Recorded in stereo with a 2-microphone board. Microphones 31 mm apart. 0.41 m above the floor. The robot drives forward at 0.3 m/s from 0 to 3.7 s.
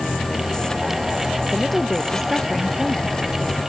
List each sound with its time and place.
1.5 s a woman speaking: 5° left (ahead or behind)